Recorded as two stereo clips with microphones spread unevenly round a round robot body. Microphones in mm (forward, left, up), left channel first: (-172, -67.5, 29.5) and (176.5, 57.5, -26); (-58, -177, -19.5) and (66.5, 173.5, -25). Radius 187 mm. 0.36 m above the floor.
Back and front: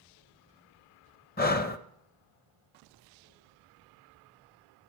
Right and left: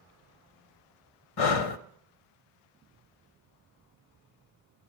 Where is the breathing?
90° right, 0.8 m.